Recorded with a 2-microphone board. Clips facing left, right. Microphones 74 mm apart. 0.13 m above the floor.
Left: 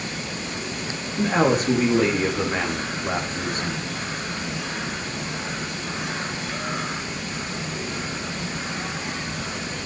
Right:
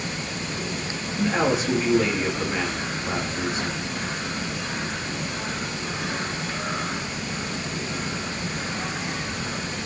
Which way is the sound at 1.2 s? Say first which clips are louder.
Left 3 dB; 50° left (ahead or behind).